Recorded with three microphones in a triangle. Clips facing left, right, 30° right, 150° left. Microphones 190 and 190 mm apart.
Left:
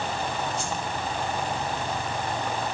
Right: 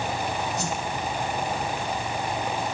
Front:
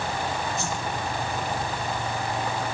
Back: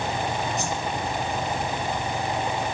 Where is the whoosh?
135° right, 4 m.